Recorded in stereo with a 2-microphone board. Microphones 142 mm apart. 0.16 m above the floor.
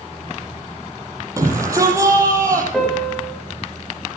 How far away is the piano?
About 8.5 m.